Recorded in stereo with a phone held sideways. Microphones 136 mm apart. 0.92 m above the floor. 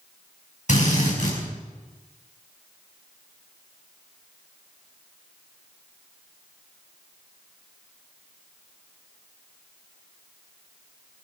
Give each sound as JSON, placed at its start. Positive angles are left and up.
{"t": 0.7, "sound": "a drill", "side_deg": 60, "distance_m": 5.5}